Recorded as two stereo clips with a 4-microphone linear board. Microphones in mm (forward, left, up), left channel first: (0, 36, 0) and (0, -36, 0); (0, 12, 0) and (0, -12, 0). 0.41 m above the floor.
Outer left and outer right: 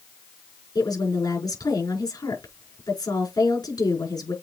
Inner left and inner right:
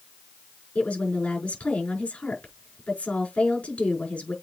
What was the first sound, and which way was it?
A woman speaking, 75° left (ahead or behind).